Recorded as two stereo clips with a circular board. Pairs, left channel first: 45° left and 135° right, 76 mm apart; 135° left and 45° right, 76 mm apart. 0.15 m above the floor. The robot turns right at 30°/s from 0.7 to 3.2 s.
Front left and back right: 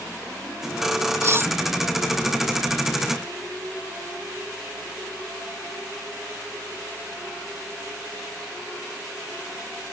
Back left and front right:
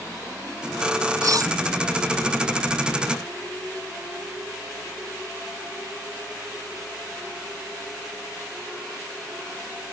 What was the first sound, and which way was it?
Cutlery clinking, 85° right.